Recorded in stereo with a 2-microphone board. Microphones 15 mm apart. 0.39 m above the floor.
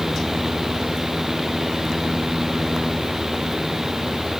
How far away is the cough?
No cough in this recording.